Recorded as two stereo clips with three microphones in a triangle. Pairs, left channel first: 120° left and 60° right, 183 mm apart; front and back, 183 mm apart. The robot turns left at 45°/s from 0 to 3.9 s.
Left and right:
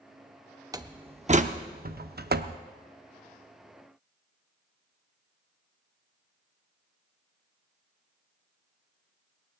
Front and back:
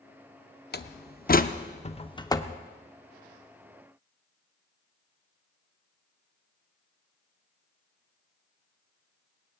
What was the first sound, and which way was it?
A door slam, 5° left.